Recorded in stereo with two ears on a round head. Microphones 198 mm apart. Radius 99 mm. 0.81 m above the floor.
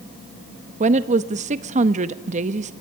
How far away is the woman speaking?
About 0.8 m.